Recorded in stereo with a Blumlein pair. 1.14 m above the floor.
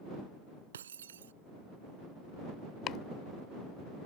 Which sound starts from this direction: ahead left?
Chopping, at 2.9 s.